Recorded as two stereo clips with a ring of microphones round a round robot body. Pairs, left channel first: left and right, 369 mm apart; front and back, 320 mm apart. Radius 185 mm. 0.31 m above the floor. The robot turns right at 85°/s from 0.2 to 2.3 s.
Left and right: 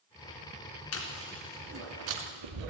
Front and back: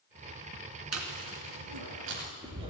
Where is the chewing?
140° left, 2.5 m; by 2.7 s 105° right, 2.5 m.